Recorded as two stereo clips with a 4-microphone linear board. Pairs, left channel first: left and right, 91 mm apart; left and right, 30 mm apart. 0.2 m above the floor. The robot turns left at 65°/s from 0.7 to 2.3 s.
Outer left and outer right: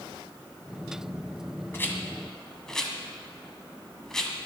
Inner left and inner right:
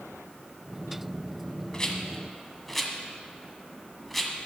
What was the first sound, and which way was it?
A rattle, 25° left (ahead or behind).